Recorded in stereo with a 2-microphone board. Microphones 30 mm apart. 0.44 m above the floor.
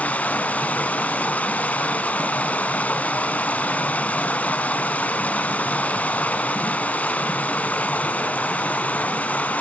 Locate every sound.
0.0 s running water: 60° left (ahead or behind), 1.1 m